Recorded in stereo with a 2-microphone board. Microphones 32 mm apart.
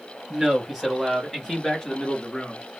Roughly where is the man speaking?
Centre.